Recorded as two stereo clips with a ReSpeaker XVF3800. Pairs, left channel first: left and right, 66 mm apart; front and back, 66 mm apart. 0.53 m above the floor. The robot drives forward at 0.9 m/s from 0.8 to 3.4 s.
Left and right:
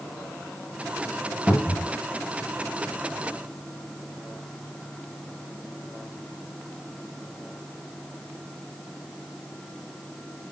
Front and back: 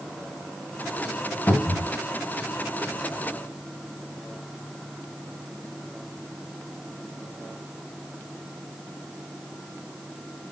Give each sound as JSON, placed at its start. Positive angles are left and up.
{"t": 1.5, "sound": "a cupboard door", "azimuth_deg": -10, "distance_m": 0.8}